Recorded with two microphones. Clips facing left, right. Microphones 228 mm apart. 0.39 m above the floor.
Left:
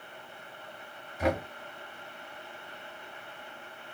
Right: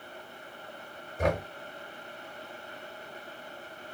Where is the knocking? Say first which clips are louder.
Even; 50° right (ahead or behind), 1.2 m.